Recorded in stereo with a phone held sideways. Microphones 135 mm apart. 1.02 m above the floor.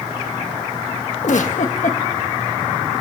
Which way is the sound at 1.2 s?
65° left (ahead or behind).